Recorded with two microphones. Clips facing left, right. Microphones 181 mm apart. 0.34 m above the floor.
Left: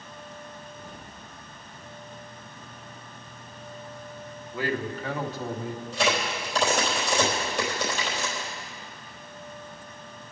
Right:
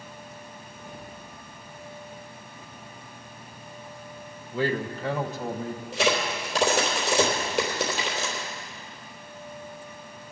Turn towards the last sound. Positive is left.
turn(degrees=-75)  # may be behind; listen again after turning